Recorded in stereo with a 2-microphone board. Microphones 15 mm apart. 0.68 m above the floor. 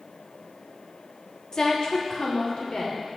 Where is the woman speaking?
45° left (ahead or behind), 1.2 m; by 3.2 s 70° left (ahead or behind), 3 m.